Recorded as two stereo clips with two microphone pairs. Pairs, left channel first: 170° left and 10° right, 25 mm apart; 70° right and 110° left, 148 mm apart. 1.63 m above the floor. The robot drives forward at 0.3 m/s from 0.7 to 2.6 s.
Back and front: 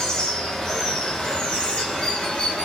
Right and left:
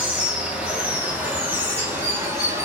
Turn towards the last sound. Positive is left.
turn(degrees=180)